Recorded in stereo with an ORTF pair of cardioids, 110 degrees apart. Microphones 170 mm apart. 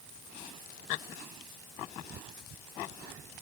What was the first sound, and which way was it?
Only background noise.